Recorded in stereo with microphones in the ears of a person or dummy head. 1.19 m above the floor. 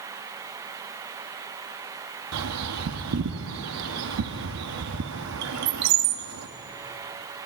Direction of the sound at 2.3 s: 75° right (ahead or behind).